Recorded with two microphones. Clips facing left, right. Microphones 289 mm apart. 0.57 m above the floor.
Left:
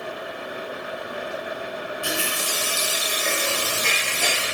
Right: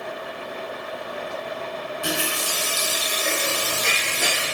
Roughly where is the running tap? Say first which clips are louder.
Right 4 dB; right.